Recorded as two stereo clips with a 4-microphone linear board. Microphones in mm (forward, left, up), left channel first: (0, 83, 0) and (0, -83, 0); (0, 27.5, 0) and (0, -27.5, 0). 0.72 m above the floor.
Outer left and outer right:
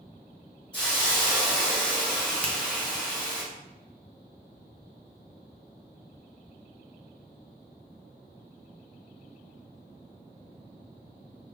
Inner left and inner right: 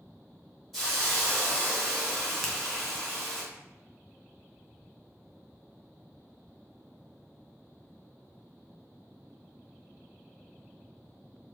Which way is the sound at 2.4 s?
10° left (ahead or behind).